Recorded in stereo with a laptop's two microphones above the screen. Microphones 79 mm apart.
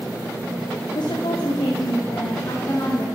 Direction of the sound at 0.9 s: 70° left (ahead or behind).